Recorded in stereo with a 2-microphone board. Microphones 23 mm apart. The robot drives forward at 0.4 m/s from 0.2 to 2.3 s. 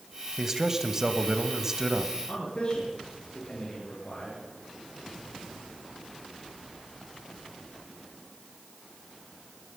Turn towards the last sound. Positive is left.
turn(degrees=40)  # may be behind; listen again after turning